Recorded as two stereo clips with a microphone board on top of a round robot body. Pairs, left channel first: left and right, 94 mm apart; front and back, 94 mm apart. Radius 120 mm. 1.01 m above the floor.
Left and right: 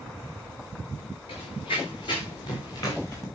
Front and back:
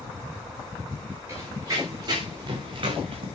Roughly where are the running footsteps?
Behind left.